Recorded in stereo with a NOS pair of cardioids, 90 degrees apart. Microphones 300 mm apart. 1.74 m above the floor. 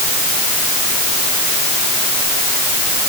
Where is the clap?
No clap in this recording.